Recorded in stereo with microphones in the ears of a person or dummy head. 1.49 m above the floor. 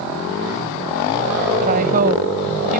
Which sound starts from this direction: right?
A woman speaking, at 1.6 s.